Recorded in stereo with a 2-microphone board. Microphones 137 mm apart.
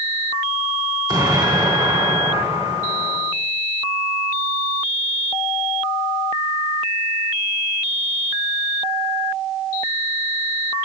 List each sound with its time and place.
1.1 s an explosion: 25° right (ahead or behind), 3.5 m